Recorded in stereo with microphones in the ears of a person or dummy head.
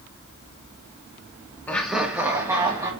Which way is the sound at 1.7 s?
15° left (ahead or behind).